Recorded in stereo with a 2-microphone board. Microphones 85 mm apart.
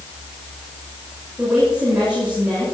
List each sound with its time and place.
1.4 s a woman speaking: 15° right (ahead or behind), 8.5 m